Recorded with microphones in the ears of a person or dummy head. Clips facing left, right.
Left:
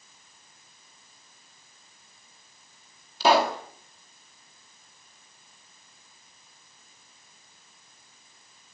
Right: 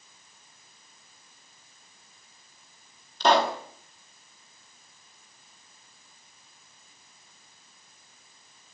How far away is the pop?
About 2 m.